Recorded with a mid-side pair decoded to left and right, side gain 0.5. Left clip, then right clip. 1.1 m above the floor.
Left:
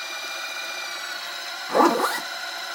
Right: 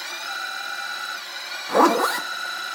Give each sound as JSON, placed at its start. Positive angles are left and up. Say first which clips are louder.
{"t": 1.7, "sound": "a zipper", "louder": "right 1 dB", "azimuth_deg": -5, "distance_m": 1.0}